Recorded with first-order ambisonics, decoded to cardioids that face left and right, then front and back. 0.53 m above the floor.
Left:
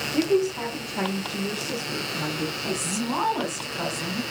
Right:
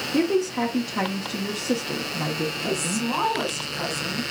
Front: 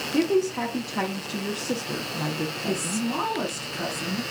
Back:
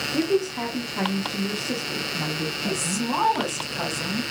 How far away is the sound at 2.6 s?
About 1.9 m.